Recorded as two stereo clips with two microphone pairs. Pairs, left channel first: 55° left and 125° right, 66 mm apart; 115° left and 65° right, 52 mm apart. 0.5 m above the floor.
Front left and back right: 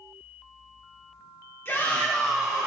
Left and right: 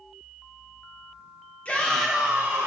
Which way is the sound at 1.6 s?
75° left.